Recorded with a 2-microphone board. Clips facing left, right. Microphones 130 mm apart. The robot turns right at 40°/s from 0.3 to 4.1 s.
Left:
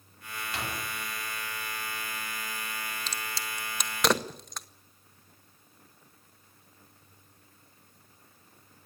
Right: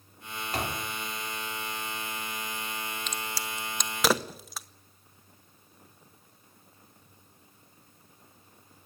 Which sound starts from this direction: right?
A door slam, at 0.5 s.